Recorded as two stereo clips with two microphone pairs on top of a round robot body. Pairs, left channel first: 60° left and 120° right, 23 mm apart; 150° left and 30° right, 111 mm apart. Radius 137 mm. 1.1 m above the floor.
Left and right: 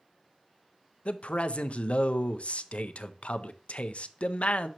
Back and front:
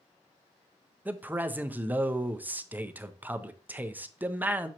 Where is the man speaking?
50° left, 0.7 m.